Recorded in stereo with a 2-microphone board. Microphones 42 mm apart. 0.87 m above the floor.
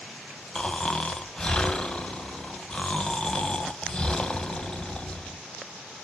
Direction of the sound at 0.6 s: 20° left (ahead or behind).